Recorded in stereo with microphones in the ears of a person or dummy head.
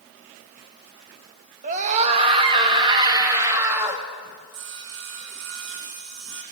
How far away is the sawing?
About 2.5 m.